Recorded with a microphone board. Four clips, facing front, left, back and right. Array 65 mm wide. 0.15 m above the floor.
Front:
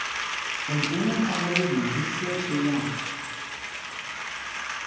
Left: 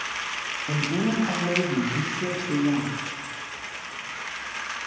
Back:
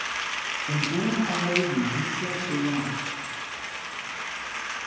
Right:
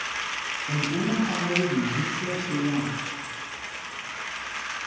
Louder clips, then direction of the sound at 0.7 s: Left 1 dB, front 1 dB; 100° left.